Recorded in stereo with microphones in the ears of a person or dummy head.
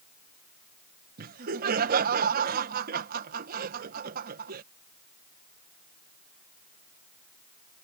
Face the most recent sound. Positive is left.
turn(degrees=-60)  # may be behind; listen again after turning